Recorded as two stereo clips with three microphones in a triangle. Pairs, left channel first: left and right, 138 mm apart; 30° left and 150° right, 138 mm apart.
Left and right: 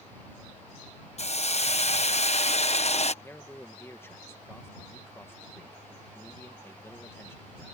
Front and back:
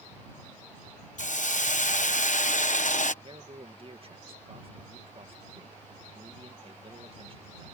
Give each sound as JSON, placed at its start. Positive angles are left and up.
{"t": 1.2, "sound": "a hiss", "azimuth_deg": 55}
{"t": 3.2, "sound": "a man speaking", "azimuth_deg": 165}